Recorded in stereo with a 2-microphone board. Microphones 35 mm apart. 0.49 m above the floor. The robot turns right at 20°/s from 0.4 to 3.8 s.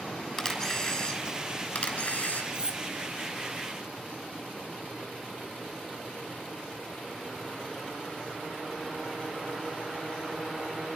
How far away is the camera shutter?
About 6.5 m.